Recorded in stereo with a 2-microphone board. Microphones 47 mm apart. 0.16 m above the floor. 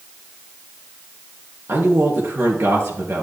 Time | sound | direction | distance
1.7 | a man speaking | 65° right (ahead or behind) | 3.5 m